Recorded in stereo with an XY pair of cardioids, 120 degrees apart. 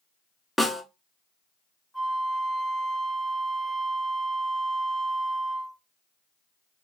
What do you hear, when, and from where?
0.6 s a snare drum: straight ahead, 1.2 m
1.9 s a flute: 5° left, 0.7 m